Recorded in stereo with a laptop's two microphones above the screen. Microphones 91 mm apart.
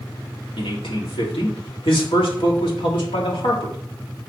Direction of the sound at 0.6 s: 80° left.